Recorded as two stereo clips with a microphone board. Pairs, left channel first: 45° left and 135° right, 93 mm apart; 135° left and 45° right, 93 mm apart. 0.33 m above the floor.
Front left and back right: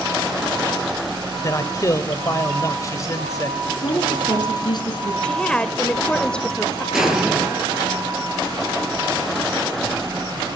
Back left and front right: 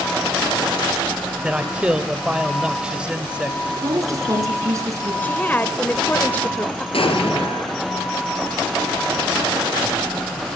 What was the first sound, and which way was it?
A man speaking, 25° left.